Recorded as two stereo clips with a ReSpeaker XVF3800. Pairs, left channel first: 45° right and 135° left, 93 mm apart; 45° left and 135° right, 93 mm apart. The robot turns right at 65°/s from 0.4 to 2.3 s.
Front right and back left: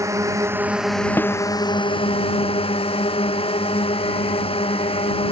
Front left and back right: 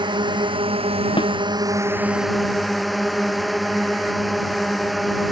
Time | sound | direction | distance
0.0 | a drone | 170° right | ?
1.2 | a snare drum | 20° left | ?